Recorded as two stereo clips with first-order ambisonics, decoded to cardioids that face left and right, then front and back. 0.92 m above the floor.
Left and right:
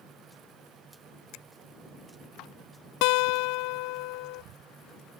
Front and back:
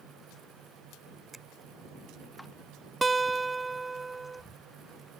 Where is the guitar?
100° left.